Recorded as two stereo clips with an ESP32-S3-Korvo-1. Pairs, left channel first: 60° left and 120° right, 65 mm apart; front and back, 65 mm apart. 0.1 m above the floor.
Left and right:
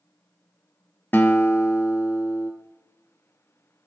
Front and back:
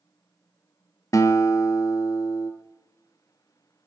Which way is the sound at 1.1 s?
10° left.